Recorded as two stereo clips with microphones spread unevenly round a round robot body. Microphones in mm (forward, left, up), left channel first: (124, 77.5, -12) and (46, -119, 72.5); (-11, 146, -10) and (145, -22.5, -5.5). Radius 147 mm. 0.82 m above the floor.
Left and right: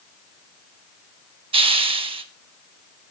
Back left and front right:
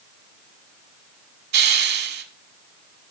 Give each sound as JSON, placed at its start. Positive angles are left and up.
{"t": 1.5, "sound": "a hiss", "azimuth_deg": -80, "distance_m": 1.0}